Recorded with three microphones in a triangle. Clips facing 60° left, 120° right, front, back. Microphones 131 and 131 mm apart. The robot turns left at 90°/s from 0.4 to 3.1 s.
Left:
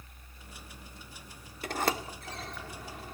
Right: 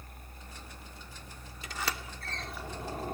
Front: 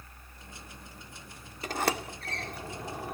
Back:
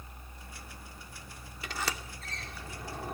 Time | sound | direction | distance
1.6 | a sliding door | 45° left | ?